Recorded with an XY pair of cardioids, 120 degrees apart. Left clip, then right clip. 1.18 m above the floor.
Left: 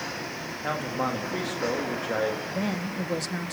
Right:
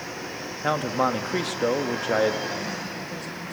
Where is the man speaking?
35° right, 1.6 m.